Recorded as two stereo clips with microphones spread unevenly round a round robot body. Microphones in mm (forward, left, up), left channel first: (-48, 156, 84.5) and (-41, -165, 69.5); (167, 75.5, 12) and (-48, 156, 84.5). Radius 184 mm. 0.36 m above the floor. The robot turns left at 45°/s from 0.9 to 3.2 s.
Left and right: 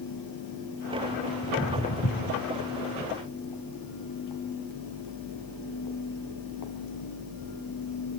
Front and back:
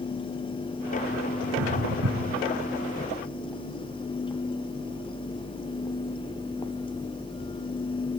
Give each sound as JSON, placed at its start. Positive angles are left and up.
{"t": 1.4, "sound": "footsteps", "azimuth_deg": -175, "distance_m": 2.5}